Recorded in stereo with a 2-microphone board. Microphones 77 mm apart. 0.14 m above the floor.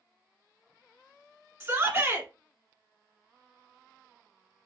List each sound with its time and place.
1.6 s a shout: 35° right (ahead or behind), 1.6 m